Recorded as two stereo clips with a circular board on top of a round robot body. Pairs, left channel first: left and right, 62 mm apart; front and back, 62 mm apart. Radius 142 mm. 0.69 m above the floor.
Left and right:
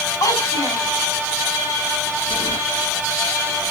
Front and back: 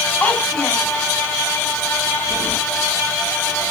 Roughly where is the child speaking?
Left.